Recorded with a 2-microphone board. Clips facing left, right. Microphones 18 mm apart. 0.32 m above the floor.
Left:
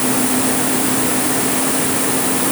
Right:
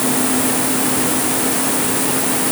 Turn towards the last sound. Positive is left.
No sound to turn to.